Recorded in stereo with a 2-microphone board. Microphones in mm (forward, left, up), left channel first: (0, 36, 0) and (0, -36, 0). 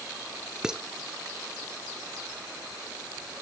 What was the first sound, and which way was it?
Dishes clattering, 10° right (ahead or behind).